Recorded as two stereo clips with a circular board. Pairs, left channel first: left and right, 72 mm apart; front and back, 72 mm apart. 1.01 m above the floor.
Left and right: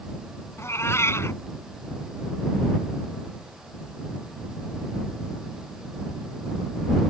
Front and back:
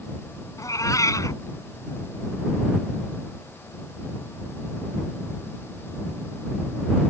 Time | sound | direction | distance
0.6 | a cat meowing | 40° left | ?